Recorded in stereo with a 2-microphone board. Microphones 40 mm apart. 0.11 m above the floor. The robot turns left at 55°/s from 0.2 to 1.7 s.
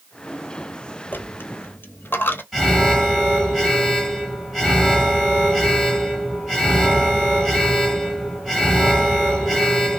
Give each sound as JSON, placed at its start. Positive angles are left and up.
{"t": 1.1, "sound": "a dropped coin", "side_deg": 60, "distance_m": 0.7}
{"t": 2.5, "sound": "an alarm", "side_deg": -5, "distance_m": 2.5}